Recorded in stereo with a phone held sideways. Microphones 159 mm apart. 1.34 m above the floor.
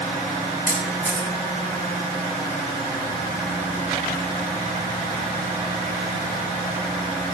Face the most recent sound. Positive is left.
turn(degrees=60)  # may be behind; listen again after turning